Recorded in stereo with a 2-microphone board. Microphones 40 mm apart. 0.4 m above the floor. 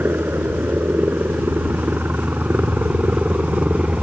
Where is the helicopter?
65° right (ahead or behind); by 4.0 s 40° right (ahead or behind).